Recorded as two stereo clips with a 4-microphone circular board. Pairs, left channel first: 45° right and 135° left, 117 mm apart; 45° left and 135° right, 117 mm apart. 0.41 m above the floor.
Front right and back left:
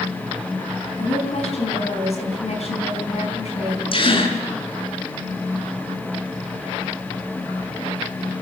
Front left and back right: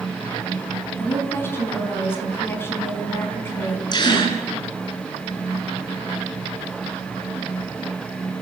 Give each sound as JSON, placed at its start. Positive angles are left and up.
{"t": 1.0, "sound": "a woman speaking", "azimuth_deg": -25, "distance_m": 4.5}
{"t": 3.9, "sound": "a gasp", "azimuth_deg": -5, "distance_m": 4.0}